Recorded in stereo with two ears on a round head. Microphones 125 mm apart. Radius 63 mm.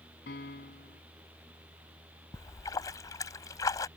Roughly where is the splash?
Left.